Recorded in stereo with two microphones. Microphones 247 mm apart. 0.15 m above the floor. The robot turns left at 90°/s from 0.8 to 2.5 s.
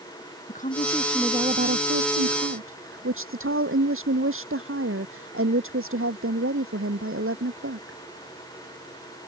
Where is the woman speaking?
35° left; by 8.0 s 120° right.